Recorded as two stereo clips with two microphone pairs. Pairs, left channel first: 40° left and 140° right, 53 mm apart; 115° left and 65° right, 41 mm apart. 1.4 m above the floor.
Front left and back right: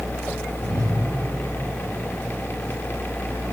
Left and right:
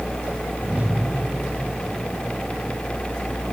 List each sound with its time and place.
0.6 s a whoosh: 130° right, 5.5 m